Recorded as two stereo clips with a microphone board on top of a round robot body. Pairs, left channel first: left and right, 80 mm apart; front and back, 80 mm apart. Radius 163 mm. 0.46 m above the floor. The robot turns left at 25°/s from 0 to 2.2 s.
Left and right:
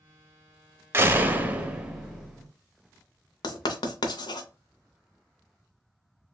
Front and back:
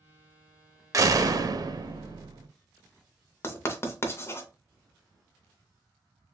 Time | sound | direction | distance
0.9 | a door slam | 145° right | 0.7 m
3.4 | writing | 60° left | 0.6 m